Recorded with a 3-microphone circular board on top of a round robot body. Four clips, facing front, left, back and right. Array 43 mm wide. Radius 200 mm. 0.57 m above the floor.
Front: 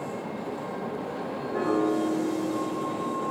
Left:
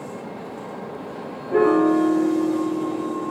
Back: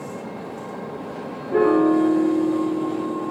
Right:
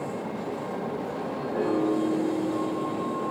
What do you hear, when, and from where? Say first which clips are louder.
1.5 s a piano: left 9 dB, back 9 dB; 120° left, 0.7 m